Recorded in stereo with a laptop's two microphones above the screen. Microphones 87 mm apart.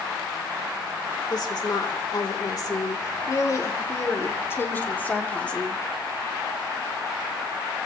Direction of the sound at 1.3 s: 60° left (ahead or behind).